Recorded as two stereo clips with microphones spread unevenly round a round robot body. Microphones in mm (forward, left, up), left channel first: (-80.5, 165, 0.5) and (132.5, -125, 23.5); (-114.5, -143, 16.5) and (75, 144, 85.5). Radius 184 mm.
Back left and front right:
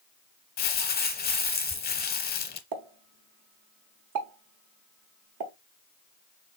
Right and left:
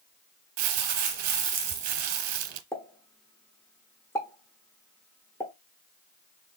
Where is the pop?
55° right, 1.0 m.